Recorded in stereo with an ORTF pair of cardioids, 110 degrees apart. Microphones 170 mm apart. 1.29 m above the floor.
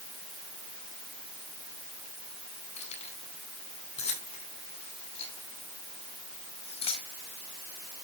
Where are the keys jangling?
40° left, 9 m; by 7.1 s 35° left, 5.5 m.